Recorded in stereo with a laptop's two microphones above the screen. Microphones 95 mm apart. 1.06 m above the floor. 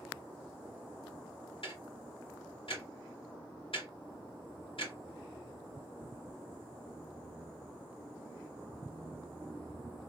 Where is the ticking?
65° left (ahead or behind), 2 m.